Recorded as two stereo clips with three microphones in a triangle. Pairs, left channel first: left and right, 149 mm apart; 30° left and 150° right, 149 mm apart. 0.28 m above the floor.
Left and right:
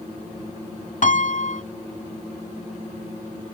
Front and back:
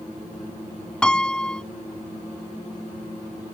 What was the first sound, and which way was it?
A piano, 115° left.